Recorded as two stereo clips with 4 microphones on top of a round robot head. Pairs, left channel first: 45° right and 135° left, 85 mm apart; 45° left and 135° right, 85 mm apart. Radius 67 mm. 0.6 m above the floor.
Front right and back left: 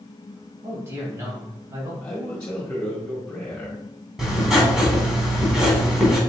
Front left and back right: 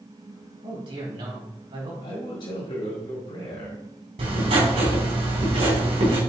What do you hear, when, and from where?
0.6 s a man speaking: 165° right, 3.5 m; by 1.9 s 170° right, 3 m
2.0 s a man speaking: 30° left, 1.9 m
4.2 s writing: 140° right, 3 m